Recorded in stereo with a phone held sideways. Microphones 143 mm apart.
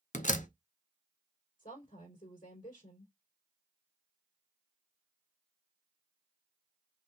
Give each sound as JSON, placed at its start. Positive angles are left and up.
{"t": 0.1, "sound": "a door slam", "side_deg": 60, "distance_m": 0.6}
{"t": 1.6, "sound": "a woman speaking", "side_deg": 75, "distance_m": 3.5}